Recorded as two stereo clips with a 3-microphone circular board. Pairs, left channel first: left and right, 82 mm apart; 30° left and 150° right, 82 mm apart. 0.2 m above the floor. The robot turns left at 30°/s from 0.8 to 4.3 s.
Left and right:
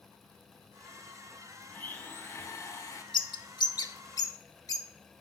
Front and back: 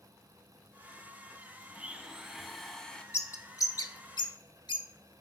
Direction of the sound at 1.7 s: 145° left.